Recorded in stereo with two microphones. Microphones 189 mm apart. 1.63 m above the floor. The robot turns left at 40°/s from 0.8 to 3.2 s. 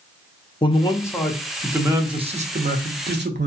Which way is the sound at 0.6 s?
25° left.